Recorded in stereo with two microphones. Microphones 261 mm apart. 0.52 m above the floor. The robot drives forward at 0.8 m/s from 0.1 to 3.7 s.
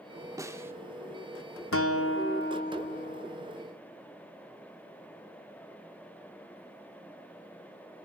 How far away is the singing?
I don't hear singing.